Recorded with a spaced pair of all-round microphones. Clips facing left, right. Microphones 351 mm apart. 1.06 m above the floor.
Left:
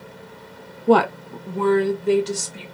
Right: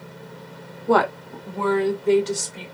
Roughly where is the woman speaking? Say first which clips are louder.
Left 4 dB; left.